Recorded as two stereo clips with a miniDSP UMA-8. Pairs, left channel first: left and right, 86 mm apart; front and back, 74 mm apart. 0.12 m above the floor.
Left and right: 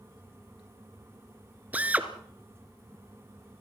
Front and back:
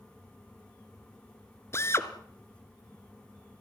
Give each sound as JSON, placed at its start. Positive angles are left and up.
{"t": 1.7, "sound": "a drill", "azimuth_deg": -30, "distance_m": 1.7}